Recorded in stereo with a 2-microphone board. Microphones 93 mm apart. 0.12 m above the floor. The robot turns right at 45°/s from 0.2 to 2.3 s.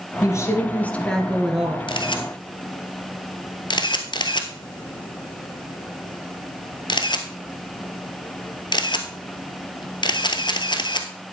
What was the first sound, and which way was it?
A woman speaking, 125° left.